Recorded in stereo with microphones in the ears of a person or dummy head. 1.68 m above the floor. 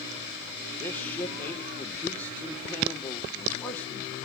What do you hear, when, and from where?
0.8 s a man speaking: 5° left (ahead or behind), 1.3 m